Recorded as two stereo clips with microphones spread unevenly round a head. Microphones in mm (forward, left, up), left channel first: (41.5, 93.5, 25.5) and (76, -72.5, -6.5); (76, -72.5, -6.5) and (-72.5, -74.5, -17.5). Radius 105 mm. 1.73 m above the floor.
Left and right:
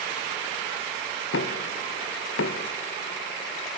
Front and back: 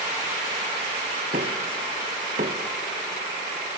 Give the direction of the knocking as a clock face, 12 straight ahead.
8 o'clock.